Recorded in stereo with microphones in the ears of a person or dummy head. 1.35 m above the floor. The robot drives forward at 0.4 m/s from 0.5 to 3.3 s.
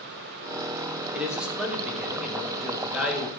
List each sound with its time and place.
1.1 s a man speaking: centre (ahead or behind), 2.5 m